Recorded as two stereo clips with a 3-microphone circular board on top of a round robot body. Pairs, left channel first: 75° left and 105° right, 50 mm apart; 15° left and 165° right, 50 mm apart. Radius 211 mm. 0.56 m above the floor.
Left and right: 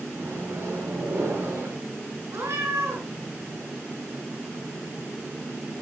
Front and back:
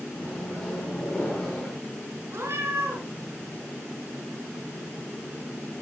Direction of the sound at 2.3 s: 135° right.